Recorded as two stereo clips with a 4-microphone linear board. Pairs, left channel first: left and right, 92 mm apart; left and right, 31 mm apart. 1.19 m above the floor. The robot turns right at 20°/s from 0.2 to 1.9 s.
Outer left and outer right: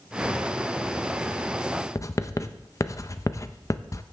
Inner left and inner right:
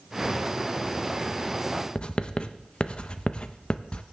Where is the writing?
35° left (ahead or behind), 0.5 m.